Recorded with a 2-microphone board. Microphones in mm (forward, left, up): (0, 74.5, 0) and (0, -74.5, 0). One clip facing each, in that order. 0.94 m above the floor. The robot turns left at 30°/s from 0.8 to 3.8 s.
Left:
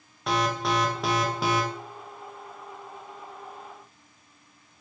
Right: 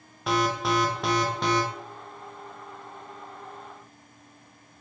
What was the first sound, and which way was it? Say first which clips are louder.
An alarm: right 1 dB; centre (ahead or behind).